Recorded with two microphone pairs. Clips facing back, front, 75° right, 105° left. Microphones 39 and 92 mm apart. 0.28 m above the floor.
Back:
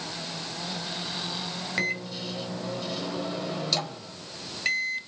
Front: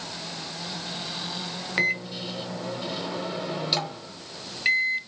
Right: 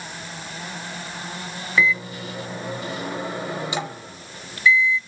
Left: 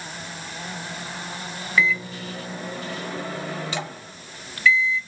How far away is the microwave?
About 0.7 m.